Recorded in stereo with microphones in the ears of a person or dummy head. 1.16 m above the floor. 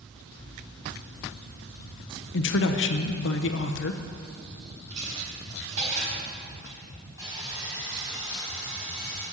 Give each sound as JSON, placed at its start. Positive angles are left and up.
{"t": 2.3, "sound": "a man speaking", "side_deg": 60, "distance_m": 0.9}
{"t": 4.9, "sound": "a dropped coin", "side_deg": -75, "distance_m": 4.0}
{"t": 7.2, "sound": "sawing", "side_deg": -20, "distance_m": 4.0}